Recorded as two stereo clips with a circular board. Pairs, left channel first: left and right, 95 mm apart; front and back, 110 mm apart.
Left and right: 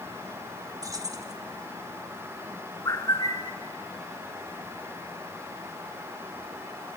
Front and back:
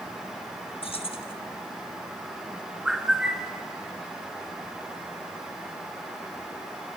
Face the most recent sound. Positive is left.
turn(degrees=100)